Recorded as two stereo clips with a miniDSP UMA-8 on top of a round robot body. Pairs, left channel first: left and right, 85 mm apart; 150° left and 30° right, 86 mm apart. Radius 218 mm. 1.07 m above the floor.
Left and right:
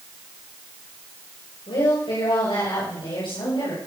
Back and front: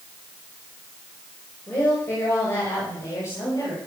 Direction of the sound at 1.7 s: 85° left.